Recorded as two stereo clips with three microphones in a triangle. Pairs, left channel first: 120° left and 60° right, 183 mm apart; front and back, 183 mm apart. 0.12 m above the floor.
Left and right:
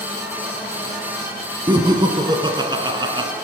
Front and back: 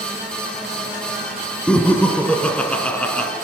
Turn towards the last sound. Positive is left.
turn(degrees=-75)